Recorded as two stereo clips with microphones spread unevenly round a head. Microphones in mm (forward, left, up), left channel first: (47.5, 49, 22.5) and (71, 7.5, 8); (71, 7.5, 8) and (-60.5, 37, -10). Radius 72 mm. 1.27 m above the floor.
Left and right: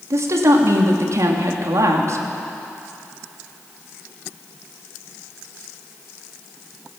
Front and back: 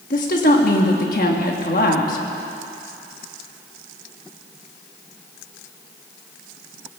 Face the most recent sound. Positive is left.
turn(degrees=-50)